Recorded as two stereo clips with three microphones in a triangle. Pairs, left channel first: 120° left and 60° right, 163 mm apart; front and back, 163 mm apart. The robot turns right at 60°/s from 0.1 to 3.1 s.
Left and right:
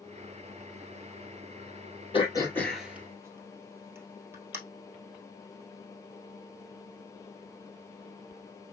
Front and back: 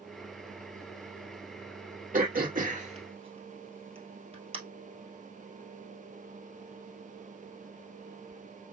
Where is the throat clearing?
170° left, 2 m; by 4.6 s 130° right, 2 m.